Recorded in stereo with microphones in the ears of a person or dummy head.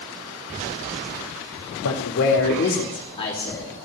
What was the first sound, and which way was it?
A man speaking, 70° left (ahead or behind).